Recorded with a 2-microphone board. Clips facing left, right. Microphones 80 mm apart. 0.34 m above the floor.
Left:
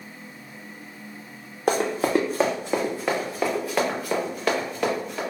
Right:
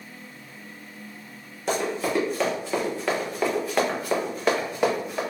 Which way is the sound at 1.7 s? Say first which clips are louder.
Left 4 dB; 50° left (ahead or behind).